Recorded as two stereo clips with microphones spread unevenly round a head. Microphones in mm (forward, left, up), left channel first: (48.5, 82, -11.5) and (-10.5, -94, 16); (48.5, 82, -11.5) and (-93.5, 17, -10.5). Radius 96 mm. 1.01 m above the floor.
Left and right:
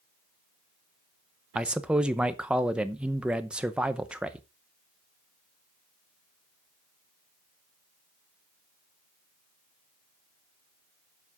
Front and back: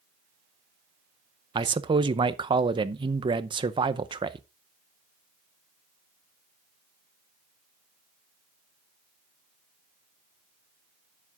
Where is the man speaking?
160° left, 0.7 m.